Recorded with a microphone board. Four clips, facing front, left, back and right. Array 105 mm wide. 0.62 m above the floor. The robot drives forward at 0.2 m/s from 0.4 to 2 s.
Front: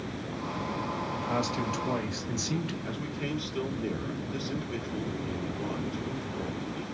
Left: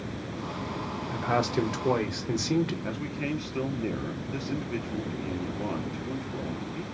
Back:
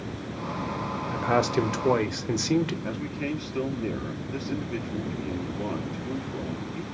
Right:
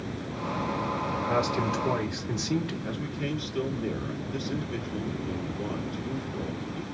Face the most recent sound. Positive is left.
turn(degrees=130)